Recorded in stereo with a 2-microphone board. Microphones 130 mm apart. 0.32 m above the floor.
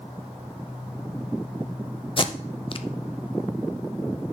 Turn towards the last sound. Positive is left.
turn(degrees=40)  # may be behind; listen again after turning